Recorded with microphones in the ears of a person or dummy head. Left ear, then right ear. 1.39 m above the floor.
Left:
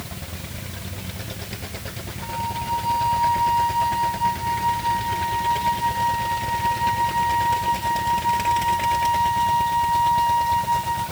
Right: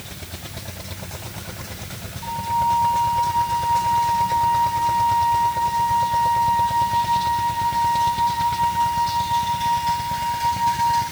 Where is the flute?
15° left (ahead or behind), 7 m.